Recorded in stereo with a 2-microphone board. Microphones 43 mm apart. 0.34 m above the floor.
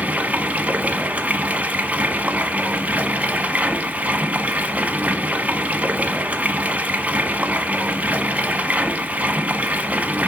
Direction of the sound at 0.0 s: 35° right (ahead or behind).